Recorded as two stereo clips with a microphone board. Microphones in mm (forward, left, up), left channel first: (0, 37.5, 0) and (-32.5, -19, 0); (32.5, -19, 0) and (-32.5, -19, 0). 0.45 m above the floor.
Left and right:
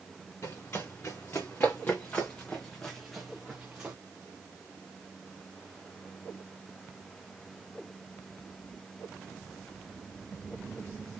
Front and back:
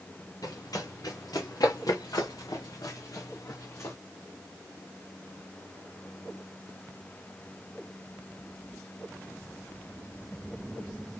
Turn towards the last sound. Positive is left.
turn(degrees=-50)